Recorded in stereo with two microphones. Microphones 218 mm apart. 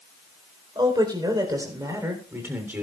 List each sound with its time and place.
0.8 s a man speaking: 20° right (ahead or behind), 4 m; by 2.8 s 5° right (ahead or behind), 3.5 m